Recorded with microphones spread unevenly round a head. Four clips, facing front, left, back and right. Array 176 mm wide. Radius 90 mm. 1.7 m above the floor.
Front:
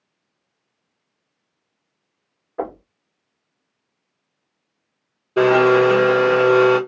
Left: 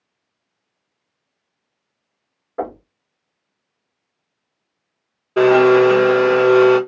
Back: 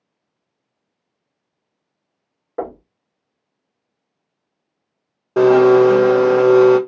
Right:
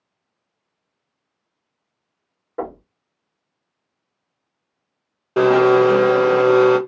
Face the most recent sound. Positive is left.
turn(degrees=-165)